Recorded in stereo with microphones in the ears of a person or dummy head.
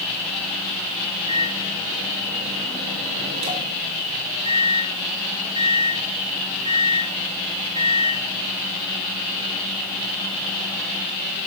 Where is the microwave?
30° right (ahead or behind), 2.5 m.